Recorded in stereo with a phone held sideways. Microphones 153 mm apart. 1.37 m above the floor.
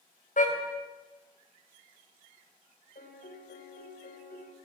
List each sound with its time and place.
0.4 s a car horn: 60° left (ahead or behind), 4.5 m
3.0 s a piano: 80° left, 4.5 m